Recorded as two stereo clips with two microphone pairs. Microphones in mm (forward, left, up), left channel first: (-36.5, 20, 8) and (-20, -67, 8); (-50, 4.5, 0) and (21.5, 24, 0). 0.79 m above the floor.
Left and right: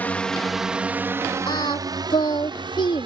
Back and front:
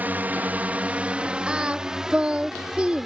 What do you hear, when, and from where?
0.0 s a drone: 50° left; by 3.1 s 70° right
1.5 s singing: 90° left